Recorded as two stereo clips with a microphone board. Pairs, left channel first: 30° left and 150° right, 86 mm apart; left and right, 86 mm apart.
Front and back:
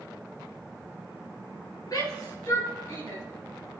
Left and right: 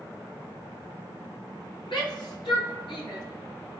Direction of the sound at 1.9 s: 75° left.